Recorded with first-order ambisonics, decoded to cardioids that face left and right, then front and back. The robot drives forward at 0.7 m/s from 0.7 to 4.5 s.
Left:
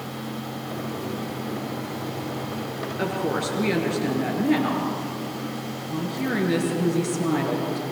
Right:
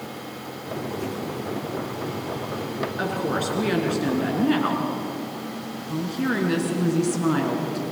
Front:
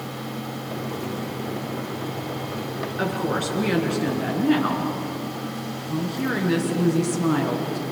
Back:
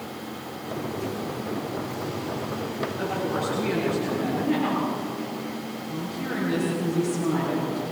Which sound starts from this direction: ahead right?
A woman speaking, at 3.0 s.